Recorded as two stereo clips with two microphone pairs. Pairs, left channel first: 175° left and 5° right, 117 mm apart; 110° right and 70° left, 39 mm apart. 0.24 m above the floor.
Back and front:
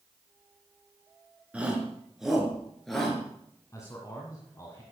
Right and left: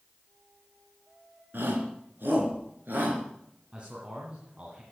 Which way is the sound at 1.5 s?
75° left.